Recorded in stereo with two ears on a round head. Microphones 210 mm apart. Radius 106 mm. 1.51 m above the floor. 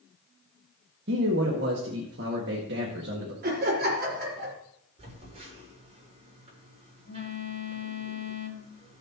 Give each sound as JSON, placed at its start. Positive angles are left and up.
{"t": 1.1, "sound": "a man speaking", "side_deg": -45, "distance_m": 1.8}
{"t": 3.4, "sound": "laughter", "side_deg": -45, "distance_m": 4.5}
{"t": 5.0, "sound": "a phone buzzing", "side_deg": -30, "distance_m": 5.5}